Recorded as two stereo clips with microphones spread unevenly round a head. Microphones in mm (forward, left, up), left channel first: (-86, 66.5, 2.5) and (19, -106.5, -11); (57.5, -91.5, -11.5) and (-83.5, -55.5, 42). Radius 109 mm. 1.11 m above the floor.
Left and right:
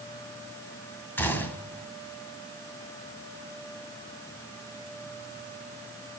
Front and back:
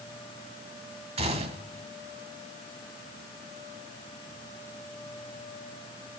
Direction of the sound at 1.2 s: 160° right.